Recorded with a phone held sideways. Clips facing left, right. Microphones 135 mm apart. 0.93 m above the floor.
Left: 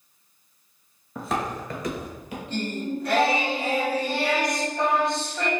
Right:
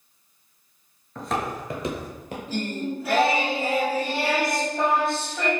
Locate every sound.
1.1 s footsteps: 10° left (ahead or behind), 0.9 m; by 2.4 s 50° right (ahead or behind), 1.3 m
2.5 s singing: 5° right (ahead or behind), 0.9 m